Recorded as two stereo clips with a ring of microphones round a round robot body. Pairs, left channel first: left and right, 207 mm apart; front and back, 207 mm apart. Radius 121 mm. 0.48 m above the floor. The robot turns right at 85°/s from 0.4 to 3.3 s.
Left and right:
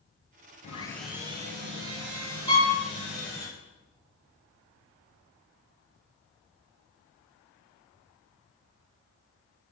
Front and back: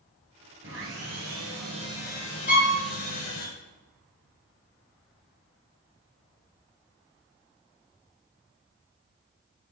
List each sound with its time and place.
0.6 s sawing: 145° left, 1.5 m; by 3.5 s 10° left, 1.5 m
2.5 s a violin: 55° right, 2.5 m; by 2.7 s 35° right, 2.5 m